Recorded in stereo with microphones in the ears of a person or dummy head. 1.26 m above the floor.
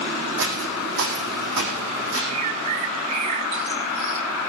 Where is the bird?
30° right (ahead or behind), 0.9 m.